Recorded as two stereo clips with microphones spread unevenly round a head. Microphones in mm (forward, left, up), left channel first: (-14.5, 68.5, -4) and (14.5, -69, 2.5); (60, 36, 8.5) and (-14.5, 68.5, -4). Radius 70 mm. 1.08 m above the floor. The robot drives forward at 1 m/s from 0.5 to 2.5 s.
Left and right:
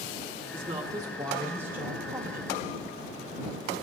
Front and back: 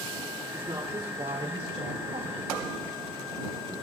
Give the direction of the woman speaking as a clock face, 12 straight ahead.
4 o'clock.